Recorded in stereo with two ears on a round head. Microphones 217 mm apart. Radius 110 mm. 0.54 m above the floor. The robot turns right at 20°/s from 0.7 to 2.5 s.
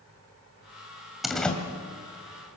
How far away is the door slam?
About 2.0 m.